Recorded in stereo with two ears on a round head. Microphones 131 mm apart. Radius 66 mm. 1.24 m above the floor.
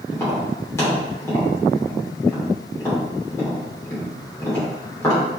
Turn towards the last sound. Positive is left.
turn(degrees=20)  # may be behind; listen again after turning